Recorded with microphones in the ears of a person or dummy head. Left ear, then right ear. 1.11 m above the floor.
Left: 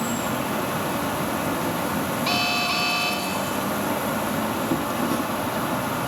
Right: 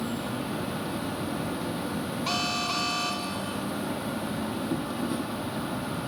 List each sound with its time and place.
0.0 s an insect: 25° left (ahead or behind)
2.3 s an alarm: 10° left (ahead or behind)